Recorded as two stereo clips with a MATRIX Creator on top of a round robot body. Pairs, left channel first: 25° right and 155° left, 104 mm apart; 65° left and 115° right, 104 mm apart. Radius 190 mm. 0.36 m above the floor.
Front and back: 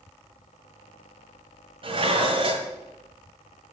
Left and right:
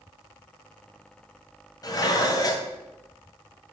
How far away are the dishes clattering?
About 1.9 m.